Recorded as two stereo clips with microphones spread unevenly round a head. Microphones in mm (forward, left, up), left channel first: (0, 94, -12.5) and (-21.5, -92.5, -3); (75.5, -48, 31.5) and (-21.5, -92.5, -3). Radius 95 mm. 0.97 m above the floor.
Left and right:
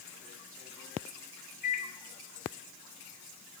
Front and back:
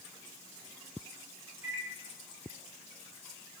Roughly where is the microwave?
Behind left.